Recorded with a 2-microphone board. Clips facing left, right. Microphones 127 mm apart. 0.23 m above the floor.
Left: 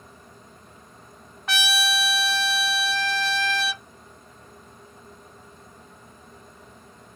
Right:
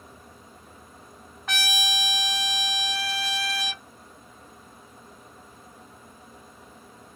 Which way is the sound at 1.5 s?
5° left (ahead or behind).